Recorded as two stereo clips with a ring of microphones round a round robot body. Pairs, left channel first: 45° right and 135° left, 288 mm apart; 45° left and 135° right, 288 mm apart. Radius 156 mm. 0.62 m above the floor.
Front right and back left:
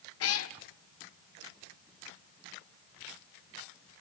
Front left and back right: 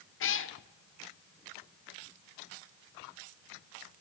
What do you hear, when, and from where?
0.2 s a cat meowing: 5° right, 1.0 m